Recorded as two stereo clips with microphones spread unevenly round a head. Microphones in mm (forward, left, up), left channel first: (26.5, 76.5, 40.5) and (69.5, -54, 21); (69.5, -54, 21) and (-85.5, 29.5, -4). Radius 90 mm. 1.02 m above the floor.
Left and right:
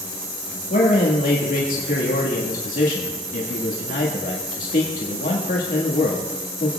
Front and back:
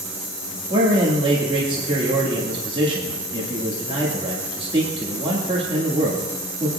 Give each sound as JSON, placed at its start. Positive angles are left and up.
{"t": 0.7, "sound": "a man speaking", "azimuth_deg": 90, "distance_m": 1.7}